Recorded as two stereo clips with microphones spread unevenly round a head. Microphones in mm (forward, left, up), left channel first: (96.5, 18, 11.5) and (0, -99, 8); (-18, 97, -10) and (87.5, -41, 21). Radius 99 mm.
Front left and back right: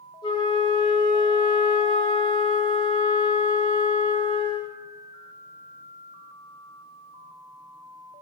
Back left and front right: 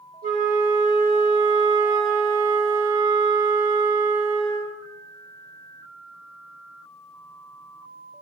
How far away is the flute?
About 0.8 m.